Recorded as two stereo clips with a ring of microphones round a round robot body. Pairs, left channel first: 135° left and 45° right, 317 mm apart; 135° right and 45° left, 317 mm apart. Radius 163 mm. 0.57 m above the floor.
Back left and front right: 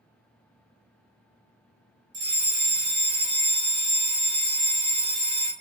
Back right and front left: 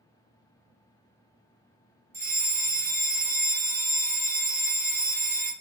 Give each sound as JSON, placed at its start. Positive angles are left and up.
{"t": 2.1, "sound": "a fire alarm", "azimuth_deg": -25, "distance_m": 1.6}